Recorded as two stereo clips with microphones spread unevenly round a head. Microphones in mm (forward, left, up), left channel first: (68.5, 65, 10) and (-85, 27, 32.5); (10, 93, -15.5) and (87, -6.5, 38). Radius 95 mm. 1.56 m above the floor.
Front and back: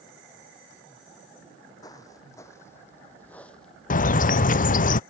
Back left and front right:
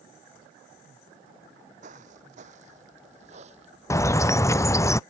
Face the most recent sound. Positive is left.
turn(degrees=55)